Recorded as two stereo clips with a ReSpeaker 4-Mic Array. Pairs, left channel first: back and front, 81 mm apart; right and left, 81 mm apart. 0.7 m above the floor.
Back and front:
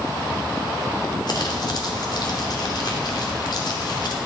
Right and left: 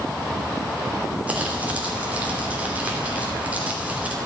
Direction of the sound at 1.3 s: 160° left.